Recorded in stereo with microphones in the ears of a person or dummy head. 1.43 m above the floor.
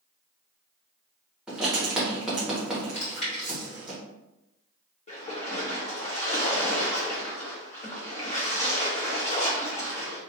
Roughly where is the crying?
No crying in this recording.